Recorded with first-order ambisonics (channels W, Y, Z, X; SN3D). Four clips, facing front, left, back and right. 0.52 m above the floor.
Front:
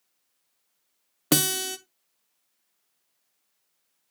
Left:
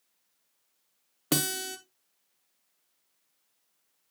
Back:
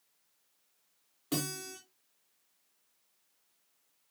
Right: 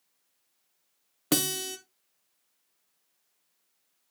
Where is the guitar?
5° right, 0.8 m.